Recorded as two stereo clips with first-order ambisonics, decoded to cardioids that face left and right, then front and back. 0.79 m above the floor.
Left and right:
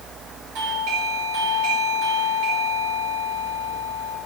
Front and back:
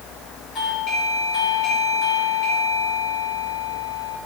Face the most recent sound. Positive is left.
turn(degrees=-55)